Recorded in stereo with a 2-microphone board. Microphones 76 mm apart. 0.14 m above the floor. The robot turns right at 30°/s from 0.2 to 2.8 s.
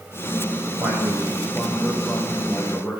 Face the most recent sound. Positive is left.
turn(degrees=45)